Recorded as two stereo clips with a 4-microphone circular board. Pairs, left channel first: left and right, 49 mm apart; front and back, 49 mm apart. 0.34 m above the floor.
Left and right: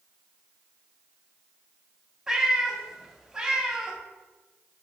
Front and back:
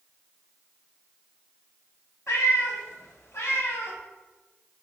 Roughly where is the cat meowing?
Ahead.